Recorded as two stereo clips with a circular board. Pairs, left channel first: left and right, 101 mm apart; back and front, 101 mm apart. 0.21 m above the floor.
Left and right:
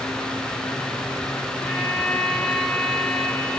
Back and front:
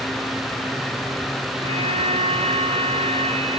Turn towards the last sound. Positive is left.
turn(degrees=5)